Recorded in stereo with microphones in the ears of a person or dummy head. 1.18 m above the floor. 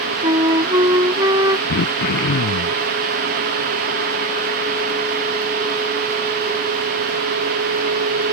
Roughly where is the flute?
Right.